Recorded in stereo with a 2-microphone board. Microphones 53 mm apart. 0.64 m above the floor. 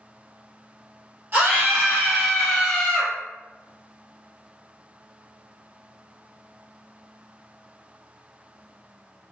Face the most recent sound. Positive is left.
turn(degrees=15)  # may be behind; listen again after turning